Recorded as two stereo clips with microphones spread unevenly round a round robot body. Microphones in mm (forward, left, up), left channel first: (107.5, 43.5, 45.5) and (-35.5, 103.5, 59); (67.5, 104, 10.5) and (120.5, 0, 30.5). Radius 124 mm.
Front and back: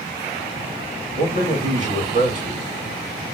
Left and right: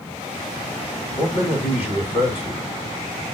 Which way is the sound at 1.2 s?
125° left.